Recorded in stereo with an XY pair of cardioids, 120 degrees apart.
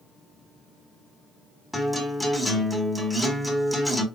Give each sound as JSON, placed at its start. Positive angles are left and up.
{"t": 1.7, "sound": "a guitar", "azimuth_deg": 0, "distance_m": 1.4}